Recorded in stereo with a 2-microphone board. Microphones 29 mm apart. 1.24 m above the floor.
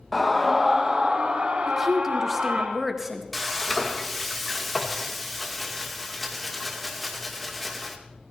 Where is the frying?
5° left (ahead or behind), 2 m.